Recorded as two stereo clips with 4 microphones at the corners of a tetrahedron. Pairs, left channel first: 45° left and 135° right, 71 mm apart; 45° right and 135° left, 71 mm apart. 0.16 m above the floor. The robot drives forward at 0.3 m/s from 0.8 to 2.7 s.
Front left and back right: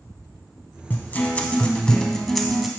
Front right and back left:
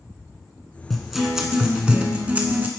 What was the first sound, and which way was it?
A guitar, 40° left.